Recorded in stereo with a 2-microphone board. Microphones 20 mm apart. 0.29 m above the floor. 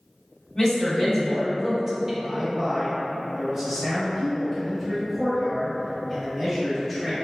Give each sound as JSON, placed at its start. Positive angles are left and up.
{"t": 0.6, "sound": "a woman speaking", "side_deg": 25, "distance_m": 1.2}
{"t": 2.2, "sound": "a man speaking", "side_deg": -10, "distance_m": 1.3}